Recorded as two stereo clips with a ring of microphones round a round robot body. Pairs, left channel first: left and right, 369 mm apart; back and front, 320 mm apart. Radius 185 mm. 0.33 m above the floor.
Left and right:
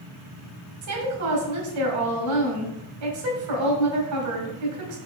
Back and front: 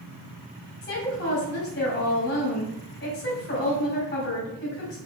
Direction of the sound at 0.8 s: 125° right.